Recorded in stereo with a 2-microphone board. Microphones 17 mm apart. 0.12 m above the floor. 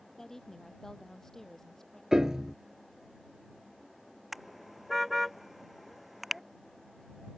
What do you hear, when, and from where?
0.2 s a woman speaking: 20° left (ahead or behind)
2.1 s a piano: 25° right (ahead or behind)
4.3 s a car horn: 15° right (ahead or behind)